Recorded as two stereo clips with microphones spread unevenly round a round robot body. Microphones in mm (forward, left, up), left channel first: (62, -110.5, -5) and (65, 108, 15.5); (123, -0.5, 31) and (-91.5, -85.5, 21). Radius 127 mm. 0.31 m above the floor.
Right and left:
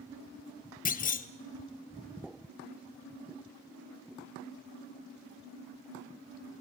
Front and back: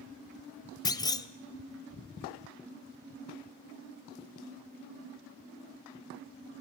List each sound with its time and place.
0.8 s a clunk: 50° right, 0.8 m